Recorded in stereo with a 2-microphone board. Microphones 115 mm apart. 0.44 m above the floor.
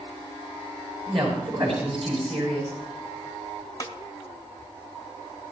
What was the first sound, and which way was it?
A woman speaking, 55° right (ahead or behind).